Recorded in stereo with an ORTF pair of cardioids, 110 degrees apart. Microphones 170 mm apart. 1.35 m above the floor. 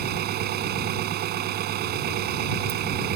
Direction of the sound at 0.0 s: 70° right.